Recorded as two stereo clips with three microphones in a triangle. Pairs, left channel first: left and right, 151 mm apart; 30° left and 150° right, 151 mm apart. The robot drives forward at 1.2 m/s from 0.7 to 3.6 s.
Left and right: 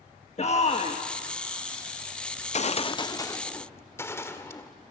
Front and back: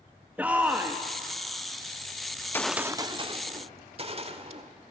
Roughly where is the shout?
Behind left.